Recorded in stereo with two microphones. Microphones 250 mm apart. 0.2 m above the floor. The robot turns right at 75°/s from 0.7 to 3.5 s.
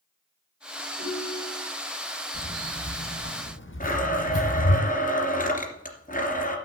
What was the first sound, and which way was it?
A ringtone, 105° left.